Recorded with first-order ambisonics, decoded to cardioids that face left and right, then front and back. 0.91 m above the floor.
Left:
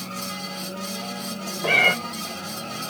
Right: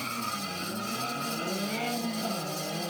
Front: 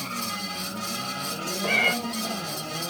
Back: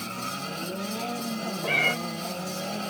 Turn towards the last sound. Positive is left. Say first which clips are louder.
# left 15 dB, front 2 dB
turn(degrees=85)